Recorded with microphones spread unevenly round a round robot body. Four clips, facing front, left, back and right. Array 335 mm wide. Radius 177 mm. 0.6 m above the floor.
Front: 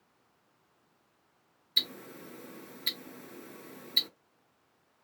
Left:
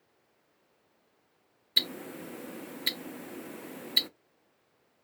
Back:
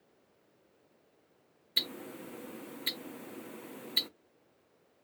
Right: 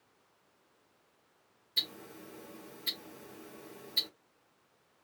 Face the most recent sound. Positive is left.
turn(degrees=85)